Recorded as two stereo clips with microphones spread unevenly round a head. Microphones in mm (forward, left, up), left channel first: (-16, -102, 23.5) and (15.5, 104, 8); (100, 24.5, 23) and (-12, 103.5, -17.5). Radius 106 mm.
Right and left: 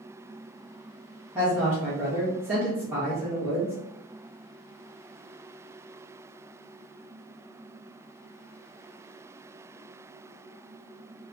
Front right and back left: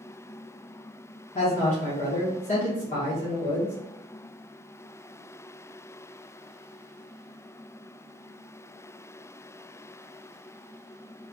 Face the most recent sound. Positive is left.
turn(degrees=0)